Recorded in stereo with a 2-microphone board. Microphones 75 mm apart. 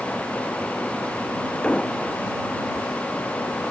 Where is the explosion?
15° left (ahead or behind).